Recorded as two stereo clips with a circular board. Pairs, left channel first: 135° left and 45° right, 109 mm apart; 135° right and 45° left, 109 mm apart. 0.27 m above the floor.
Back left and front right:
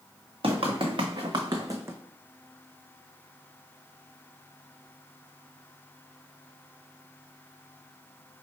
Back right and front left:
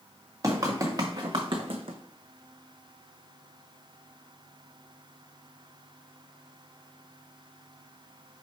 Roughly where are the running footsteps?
Ahead.